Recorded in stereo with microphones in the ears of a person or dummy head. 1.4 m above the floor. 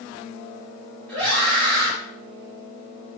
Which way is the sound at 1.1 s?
5° left (ahead or behind).